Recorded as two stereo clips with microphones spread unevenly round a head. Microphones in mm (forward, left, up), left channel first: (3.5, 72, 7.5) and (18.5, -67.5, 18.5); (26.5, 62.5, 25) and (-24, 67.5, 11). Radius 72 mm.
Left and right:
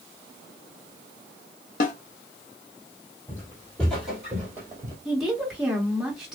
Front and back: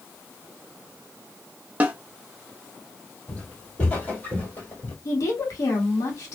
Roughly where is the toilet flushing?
I don't hear a toilet flushing.